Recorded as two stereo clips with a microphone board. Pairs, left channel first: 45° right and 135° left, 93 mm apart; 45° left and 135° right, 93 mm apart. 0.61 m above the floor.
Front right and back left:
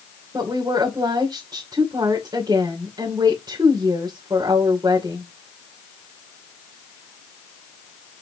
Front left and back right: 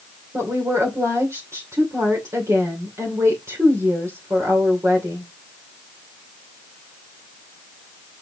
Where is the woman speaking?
170° left, 2.5 m.